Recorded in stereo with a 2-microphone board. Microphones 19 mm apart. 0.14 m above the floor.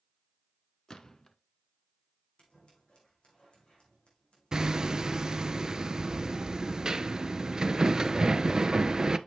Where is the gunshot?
35° left (ahead or behind), 1.0 m.